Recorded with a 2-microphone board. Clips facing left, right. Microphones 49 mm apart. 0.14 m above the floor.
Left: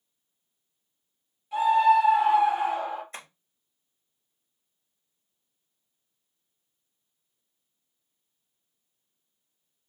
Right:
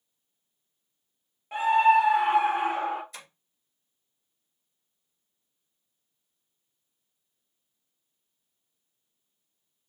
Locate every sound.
1.5 s a scream: 50° right (ahead or behind), 2.5 m; by 3.0 s 55° right (ahead or behind), 2.5 m
3.1 s tapping: 40° left (ahead or behind), 2 m